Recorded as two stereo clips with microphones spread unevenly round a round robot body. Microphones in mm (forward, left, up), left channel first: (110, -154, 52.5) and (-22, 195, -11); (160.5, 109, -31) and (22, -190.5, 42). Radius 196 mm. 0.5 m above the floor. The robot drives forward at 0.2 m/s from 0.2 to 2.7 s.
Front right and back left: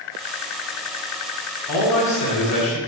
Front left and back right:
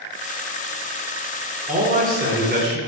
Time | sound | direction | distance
1.7 | a man speaking | 45° right | 1.3 m